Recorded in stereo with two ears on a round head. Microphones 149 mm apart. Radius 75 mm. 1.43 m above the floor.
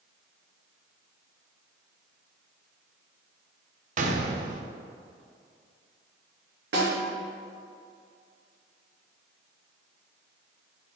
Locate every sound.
4.0 s a gunshot: 45° right (ahead or behind), 0.8 m
6.7 s a snare drum: 80° right, 2.5 m